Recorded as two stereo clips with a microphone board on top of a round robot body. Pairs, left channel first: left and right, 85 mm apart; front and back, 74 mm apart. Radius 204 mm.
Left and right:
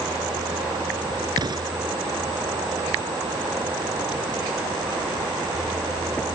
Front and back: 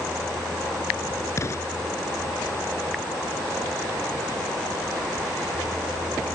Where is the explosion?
50° right.